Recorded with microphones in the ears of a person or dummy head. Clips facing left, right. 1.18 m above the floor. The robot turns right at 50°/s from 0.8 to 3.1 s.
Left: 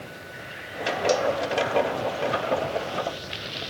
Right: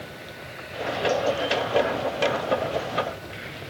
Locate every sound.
1.1 s a cowbell: 50° left (ahead or behind), 1.0 m; by 1.3 s 55° left (ahead or behind), 1.0 m